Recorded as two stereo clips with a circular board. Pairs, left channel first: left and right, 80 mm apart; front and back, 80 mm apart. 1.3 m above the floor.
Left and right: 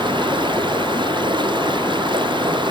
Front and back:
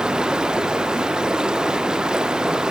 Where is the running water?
100° right, 0.7 m.